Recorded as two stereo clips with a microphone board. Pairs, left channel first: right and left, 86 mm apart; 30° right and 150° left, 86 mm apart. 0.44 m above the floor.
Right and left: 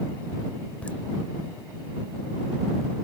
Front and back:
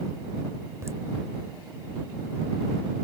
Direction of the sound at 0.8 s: 160° right.